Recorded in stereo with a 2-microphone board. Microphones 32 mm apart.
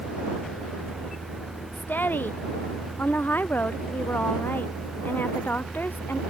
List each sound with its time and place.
1.7 s a woman speaking: 80° left